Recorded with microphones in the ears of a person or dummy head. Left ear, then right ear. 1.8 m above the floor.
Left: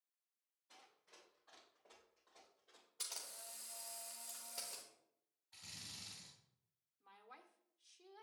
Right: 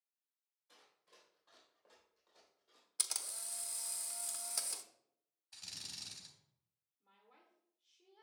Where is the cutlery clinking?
I don't hear cutlery clinking.